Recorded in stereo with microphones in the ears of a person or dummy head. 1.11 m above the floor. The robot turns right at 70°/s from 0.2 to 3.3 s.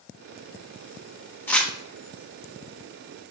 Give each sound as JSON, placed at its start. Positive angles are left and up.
{"t": 1.5, "sound": "crumpling", "side_deg": 5, "distance_m": 1.3}